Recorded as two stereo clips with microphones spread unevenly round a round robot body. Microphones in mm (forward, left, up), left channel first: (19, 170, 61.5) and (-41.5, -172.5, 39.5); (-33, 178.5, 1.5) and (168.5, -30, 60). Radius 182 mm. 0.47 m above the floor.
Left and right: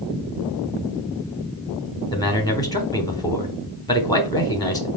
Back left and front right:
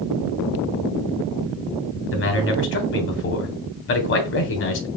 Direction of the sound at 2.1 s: 160° left.